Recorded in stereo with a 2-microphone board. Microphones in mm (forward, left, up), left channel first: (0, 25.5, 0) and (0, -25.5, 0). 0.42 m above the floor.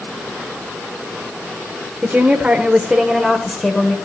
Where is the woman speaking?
30° right (ahead or behind), 1.0 m; by 4.0 s 10° left (ahead or behind), 1.3 m.